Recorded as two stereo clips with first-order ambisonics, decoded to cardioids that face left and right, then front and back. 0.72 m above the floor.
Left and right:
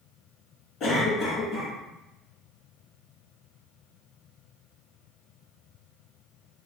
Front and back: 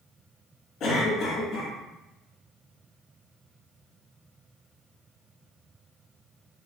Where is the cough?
50° left, 1.2 m.